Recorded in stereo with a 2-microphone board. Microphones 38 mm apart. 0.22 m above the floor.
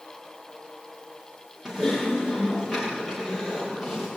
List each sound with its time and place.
1.6 s typing on a keyboard: 10° right (ahead or behind), 9.5 m